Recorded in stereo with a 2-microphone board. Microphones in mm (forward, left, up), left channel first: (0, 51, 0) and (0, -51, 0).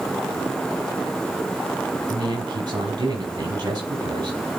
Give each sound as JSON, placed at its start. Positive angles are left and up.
{"t": 2.1, "sound": "a man speaking", "side_deg": -55, "distance_m": 6.0}